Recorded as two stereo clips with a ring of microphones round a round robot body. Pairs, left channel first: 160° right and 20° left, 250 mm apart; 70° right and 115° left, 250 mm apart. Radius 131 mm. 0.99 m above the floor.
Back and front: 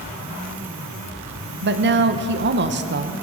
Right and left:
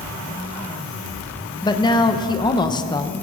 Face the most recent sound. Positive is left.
turn(degrees=0)